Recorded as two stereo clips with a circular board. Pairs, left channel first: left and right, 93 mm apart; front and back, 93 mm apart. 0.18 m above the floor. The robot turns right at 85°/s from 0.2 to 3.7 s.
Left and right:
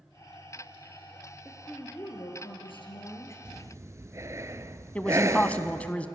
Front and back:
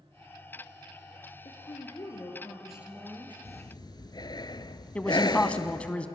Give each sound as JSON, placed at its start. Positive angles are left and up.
{"t": 1.4, "sound": "a woman speaking", "azimuth_deg": -10, "distance_m": 3.5}
{"t": 3.5, "sound": "breathing", "azimuth_deg": -55, "distance_m": 0.7}
{"t": 5.0, "sound": "a man speaking", "azimuth_deg": 50, "distance_m": 1.1}